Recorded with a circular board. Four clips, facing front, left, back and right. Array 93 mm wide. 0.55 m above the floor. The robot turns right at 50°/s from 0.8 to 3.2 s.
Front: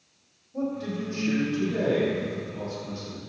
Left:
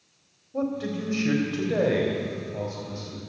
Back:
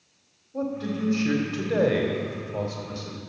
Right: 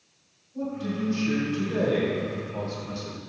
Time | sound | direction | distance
0.5 | a man speaking | 100° left | 2 m